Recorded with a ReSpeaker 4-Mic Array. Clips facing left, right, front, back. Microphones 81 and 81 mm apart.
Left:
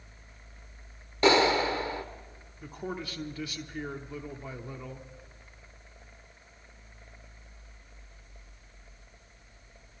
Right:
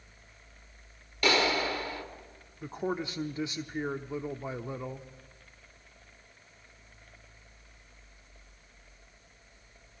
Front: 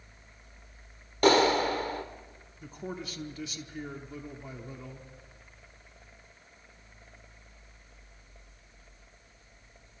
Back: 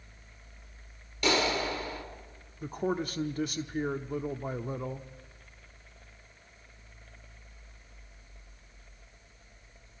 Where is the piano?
No piano in this recording.